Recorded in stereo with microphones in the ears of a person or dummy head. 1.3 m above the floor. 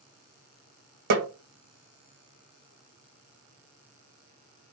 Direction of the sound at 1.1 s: 50° right (ahead or behind).